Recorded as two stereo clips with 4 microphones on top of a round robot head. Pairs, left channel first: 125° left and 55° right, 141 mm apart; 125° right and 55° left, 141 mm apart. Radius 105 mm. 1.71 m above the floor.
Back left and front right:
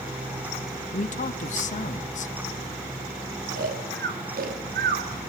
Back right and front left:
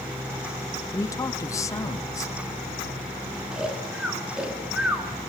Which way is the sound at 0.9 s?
165° left.